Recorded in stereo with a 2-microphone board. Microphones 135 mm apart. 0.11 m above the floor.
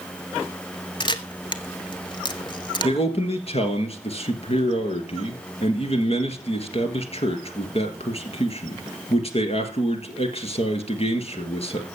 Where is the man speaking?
50° left (ahead or behind), 1.9 m.